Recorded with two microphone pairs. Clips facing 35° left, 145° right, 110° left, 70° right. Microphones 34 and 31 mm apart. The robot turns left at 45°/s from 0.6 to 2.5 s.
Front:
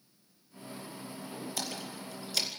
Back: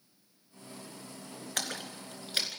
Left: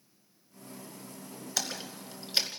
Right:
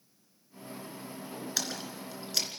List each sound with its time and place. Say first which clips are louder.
1.6 s a splash: back 5 dB, left 2 dB; 155° right, 2 m; by 2.6 s 160° left, 2 m